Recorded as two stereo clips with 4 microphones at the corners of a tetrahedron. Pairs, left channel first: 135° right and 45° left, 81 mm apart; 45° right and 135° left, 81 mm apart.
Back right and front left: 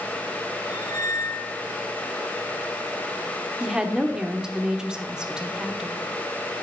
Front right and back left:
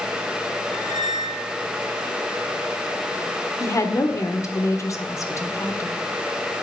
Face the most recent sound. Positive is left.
turn(degrees=-30)